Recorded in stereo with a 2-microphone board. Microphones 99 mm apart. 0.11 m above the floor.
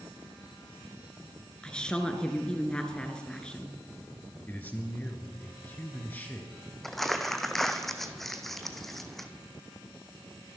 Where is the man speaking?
20° left (ahead or behind), 2.0 m.